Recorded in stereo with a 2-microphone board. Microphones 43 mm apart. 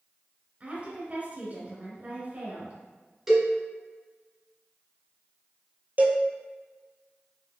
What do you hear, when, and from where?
0.6 s a woman speaking: 35° right (ahead or behind), 1.2 m
3.3 s a cowbell: 10° right (ahead or behind), 1.5 m
6.0 s a cowbell: 40° right (ahead or behind), 0.7 m